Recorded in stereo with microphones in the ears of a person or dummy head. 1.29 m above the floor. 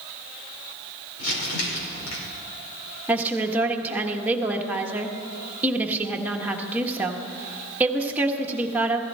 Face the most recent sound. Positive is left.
turn(degrees=-15)  # may be behind; listen again after turning